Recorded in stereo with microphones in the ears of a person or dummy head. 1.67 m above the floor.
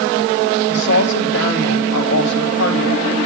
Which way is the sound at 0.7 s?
75° left (ahead or behind).